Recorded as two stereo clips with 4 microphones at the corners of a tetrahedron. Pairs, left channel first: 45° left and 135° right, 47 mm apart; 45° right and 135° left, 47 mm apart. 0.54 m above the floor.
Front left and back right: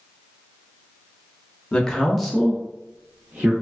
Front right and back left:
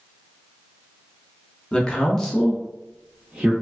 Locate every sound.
1.7 s a man speaking: straight ahead, 0.7 m; by 3.5 s 160° right, 0.8 m